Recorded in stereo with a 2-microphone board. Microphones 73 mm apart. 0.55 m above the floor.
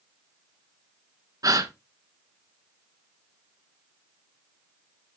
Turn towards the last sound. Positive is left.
turn(degrees=-55)  # may be behind; listen again after turning